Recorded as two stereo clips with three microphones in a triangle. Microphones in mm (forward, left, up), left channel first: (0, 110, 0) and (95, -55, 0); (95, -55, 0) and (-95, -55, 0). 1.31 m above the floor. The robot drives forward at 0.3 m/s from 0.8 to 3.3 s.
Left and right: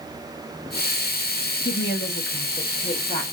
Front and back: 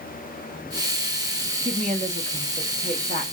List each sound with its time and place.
1.6 s a woman speaking: 125° left, 0.7 m; by 3.3 s 150° left, 1.1 m